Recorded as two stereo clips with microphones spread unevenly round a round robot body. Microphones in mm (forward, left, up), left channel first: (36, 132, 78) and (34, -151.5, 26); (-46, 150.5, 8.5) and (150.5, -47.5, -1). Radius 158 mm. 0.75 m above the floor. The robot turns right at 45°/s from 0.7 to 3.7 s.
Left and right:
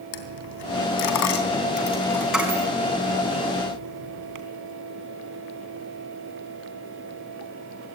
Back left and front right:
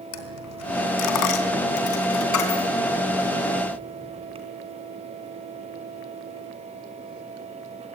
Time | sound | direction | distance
0.1 | a dropped coin | 105° left | 3 m